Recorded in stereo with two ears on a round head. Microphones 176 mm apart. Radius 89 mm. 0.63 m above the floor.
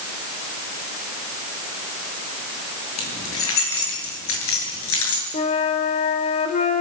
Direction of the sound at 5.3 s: 35° left (ahead or behind).